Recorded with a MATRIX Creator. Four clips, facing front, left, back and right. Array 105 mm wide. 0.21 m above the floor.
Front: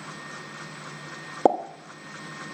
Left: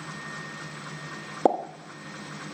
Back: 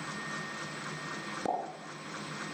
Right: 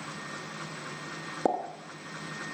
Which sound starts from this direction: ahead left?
A pop, at 1.4 s.